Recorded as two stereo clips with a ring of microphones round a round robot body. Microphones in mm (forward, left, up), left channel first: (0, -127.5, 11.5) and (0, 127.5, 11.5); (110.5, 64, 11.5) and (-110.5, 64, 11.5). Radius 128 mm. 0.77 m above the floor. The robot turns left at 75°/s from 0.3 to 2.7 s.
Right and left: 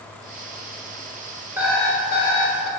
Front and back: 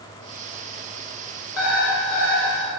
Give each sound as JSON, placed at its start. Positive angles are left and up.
{"t": 1.6, "sound": "an alarm clock", "azimuth_deg": 10, "distance_m": 1.1}